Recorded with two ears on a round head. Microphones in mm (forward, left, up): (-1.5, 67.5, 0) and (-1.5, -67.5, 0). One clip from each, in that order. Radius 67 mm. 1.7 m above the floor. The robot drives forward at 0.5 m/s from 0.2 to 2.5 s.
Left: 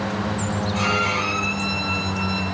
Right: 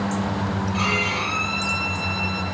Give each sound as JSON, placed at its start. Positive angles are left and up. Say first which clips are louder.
{"t": 0.7, "sound": "a violin", "louder": "left 1 dB", "side_deg": -15, "distance_m": 7.5}